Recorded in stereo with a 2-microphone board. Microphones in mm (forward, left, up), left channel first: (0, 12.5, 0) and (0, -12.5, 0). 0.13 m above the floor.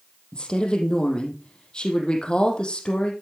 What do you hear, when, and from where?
0.3 s a woman speaking: 35° left (ahead or behind), 4 m